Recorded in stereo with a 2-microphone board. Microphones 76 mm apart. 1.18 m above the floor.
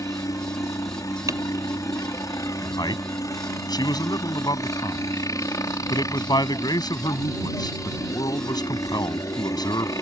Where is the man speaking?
60° left (ahead or behind).